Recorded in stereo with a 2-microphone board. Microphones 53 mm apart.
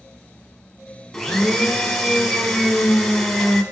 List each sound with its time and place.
1.1 s a blender: 5° left (ahead or behind), 1.0 m